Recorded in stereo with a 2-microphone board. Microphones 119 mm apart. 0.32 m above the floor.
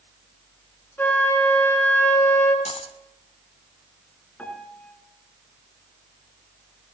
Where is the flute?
15° left (ahead or behind), 2.5 m.